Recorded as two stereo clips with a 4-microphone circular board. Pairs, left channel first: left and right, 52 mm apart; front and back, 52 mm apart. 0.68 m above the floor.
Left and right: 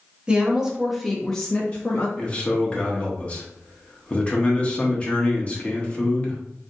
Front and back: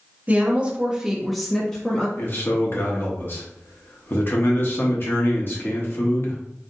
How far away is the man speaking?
About 0.9 m.